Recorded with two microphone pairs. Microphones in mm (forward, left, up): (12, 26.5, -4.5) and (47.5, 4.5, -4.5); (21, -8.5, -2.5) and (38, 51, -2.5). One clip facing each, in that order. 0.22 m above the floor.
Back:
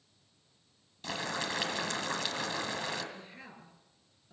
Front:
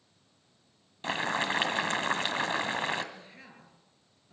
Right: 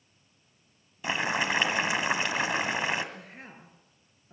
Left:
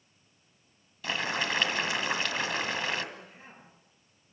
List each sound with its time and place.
1.0 s boiling: 45° right, 1.7 m
3.1 s a woman speaking: 125° right, 4.5 m